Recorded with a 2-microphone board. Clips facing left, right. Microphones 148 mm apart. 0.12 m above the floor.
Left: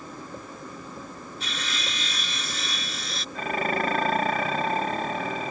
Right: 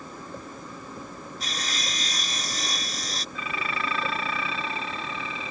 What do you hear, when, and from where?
1.4 s sawing: 40° right (ahead or behind)
3.4 s dishes clattering: 50° left (ahead or behind)